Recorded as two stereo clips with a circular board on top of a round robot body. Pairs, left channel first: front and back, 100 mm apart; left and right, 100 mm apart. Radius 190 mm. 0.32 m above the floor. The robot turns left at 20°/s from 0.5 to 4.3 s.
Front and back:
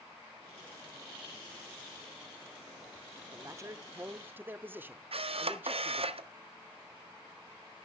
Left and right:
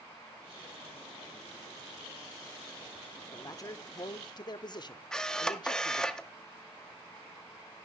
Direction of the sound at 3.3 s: 135° left.